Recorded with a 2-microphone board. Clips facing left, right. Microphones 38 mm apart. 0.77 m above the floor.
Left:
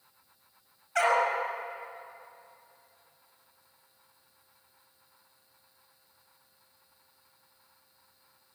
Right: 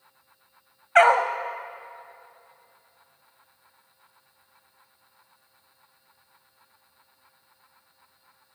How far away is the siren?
No siren in this recording.